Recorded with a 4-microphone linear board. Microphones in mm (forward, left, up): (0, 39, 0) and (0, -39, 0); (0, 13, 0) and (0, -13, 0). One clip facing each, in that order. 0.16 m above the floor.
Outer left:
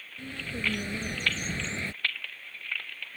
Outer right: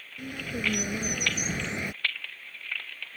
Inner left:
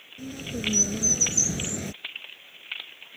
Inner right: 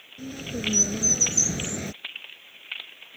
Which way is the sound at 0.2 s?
15° right (ahead or behind).